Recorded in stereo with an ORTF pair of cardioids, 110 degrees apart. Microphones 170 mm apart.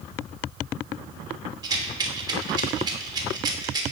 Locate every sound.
1.6 s a rattle: 25° right, 1.1 m